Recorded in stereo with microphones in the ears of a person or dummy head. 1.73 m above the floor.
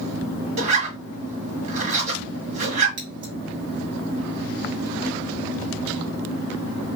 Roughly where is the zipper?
Right.